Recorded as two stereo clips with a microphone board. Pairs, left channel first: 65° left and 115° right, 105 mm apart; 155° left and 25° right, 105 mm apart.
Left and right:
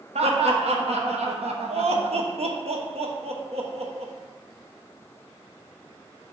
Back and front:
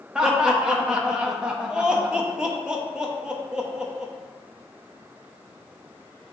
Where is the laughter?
105° right, 1.1 m.